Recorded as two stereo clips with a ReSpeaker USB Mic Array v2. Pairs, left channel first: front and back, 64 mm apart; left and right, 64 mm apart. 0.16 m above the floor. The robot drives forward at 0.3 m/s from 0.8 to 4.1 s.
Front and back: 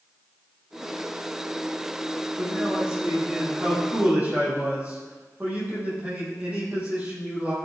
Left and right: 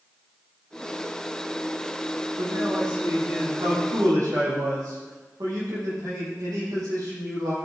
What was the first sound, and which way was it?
A man speaking, 105° right.